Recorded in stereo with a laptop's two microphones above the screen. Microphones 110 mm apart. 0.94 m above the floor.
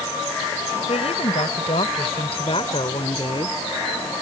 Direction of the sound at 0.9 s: 70° left (ahead or behind).